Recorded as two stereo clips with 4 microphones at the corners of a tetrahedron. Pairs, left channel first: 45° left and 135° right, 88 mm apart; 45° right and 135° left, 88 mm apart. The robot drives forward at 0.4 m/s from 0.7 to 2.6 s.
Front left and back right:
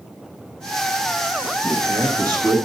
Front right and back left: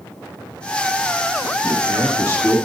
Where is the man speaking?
170° right, 1.3 m; by 2.6 s 175° right, 1.6 m.